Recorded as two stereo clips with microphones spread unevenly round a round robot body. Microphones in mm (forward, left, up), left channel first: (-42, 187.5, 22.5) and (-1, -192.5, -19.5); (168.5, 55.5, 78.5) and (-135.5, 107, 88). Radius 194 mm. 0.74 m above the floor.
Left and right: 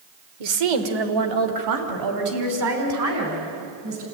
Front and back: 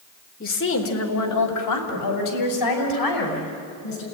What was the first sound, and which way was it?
A woman speaking, 75° right.